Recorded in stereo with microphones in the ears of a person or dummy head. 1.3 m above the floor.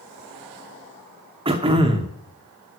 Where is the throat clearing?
25° right (ahead or behind), 1.0 m.